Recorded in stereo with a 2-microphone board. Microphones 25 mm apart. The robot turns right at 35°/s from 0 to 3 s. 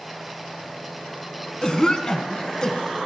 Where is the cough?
30° left (ahead or behind), 1.4 m; by 3.0 s 25° left (ahead or behind), 1.4 m.